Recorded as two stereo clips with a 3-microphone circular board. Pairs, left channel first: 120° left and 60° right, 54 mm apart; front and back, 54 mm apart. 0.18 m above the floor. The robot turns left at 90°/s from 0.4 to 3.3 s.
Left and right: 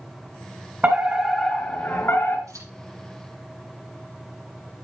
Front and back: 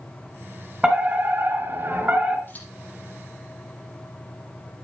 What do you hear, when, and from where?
0.8 s a fire alarm: 110° right, 3 m; by 2.4 s 115° left, 3 m
2.5 s scissors: 50° right, 6 m; by 2.7 s 70° right, 6 m